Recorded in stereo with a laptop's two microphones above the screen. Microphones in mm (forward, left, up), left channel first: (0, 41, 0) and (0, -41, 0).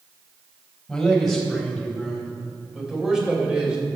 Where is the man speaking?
5° left (ahead or behind), 4.5 m; by 3.8 s 10° right (ahead or behind), 3.5 m.